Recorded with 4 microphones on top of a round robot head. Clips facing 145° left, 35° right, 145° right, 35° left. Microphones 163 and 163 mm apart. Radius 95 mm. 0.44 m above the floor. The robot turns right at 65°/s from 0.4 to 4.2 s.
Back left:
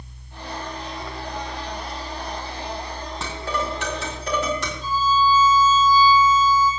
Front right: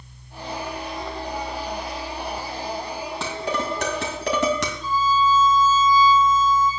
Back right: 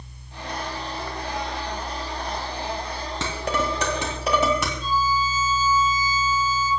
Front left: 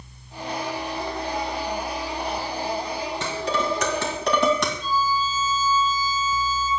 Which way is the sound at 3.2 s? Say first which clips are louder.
Even, back right 1 dB; 125° right.